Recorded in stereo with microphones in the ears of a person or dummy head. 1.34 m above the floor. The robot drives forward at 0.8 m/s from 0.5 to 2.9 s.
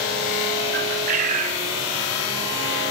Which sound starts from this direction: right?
A bird, at 0.7 s.